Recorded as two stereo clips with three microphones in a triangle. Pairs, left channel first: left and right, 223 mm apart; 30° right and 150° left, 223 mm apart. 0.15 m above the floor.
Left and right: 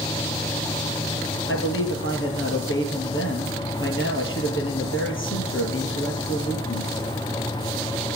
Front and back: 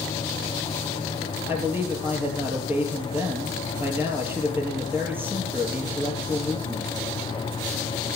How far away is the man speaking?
About 4 m.